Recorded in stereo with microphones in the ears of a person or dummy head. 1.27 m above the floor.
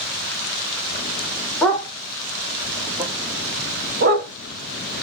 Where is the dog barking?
5° left (ahead or behind), 1.5 m; by 4.3 s 50° right (ahead or behind), 1.0 m.